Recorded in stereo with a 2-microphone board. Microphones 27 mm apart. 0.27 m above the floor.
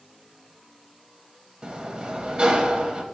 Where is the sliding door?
35° right (ahead or behind), 0.5 m.